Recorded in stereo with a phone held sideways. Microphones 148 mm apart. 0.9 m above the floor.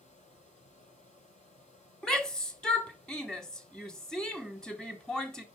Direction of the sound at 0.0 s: 60° left (ahead or behind).